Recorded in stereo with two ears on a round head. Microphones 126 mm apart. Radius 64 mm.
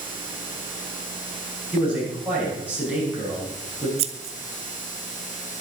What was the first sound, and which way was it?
A man speaking, 10° right (ahead or behind).